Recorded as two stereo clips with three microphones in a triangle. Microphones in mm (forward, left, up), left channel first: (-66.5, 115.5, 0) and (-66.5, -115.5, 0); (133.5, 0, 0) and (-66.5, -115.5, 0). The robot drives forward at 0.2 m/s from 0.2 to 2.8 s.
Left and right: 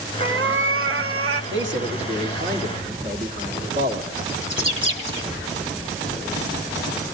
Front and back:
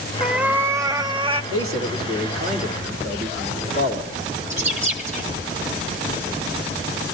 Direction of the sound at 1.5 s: 125° right.